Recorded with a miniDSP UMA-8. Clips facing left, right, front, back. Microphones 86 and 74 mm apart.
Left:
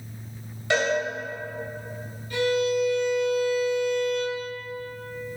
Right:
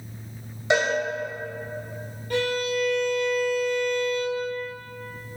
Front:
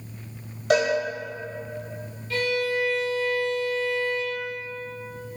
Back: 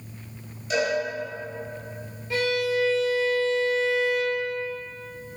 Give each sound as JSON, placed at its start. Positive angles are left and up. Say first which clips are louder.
{"t": 0.7, "sound": "a cowbell", "louder": "right 1 dB, front 4 dB", "azimuth_deg": -20, "distance_m": 2.5}
{"t": 2.3, "sound": "a violin", "louder": "left 2 dB, back 1 dB", "azimuth_deg": -110, "distance_m": 2.0}